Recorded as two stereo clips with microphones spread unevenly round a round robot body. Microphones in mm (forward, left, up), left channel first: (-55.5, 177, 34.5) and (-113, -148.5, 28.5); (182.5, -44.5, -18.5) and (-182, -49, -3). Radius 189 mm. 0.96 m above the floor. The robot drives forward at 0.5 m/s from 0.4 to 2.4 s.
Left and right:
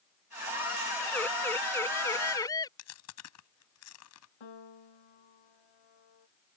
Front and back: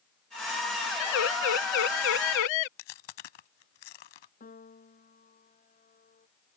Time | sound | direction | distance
1.0 | a siren | 5° right | ?
2.8 | chewing | 30° left | ?
4.4 | a piano | 70° left | ?